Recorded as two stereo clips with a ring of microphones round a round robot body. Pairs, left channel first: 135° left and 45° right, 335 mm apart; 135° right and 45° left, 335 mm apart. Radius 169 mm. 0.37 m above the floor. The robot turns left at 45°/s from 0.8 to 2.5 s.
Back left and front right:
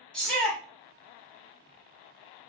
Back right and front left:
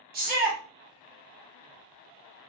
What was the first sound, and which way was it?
A shout, 50° left.